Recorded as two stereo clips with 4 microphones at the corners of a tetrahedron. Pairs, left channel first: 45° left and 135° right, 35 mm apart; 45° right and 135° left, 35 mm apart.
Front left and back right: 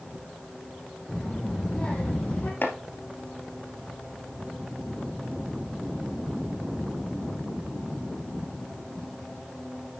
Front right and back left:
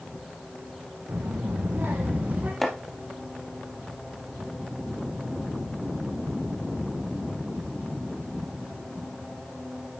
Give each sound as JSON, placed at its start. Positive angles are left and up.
{"t": 1.1, "sound": "a child speaking", "azimuth_deg": 130, "distance_m": 3.0}
{"t": 2.6, "sound": "chopping", "azimuth_deg": 35, "distance_m": 2.0}